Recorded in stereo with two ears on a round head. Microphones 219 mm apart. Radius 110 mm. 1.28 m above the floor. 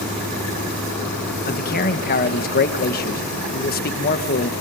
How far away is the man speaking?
About 1.2 m.